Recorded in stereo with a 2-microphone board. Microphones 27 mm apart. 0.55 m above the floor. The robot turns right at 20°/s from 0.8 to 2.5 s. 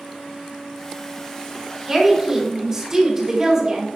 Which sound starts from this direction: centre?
A woman speaking, at 1.9 s.